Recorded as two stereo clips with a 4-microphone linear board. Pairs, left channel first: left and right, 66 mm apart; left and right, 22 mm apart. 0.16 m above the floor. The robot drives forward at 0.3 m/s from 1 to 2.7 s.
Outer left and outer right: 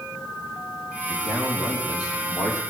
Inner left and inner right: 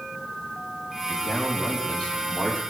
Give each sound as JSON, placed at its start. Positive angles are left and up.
{"t": 1.1, "sound": "a man speaking", "side_deg": 75, "distance_m": 6.5}